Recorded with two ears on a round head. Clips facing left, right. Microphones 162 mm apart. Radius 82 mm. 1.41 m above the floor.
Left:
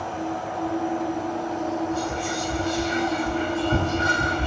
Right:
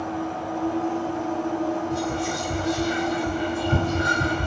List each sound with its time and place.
1.9 s whispering: 20° right (ahead or behind), 1.3 m